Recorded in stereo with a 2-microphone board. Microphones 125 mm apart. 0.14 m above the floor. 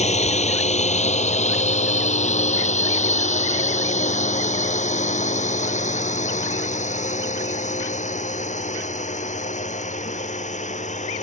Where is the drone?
65° left (ahead or behind); by 11.2 s 75° left (ahead or behind).